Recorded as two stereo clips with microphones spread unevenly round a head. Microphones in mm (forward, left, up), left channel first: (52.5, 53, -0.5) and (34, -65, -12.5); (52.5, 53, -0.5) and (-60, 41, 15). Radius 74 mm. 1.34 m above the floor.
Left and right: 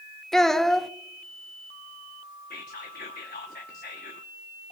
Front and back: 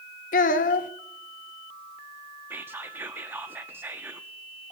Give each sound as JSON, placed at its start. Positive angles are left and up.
{"t": 0.3, "sound": "a child speaking", "azimuth_deg": -5, "distance_m": 0.7}
{"t": 2.5, "sound": "whispering", "azimuth_deg": 115, "distance_m": 0.8}